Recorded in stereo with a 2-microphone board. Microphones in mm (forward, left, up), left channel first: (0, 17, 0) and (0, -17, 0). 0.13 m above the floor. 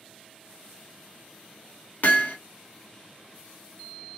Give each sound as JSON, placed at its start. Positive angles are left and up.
{"t": 2.0, "sound": "hammering", "side_deg": 65, "distance_m": 1.1}